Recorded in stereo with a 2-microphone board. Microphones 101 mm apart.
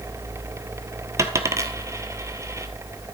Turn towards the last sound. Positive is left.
turn(degrees=-30)  # may be behind; listen again after turning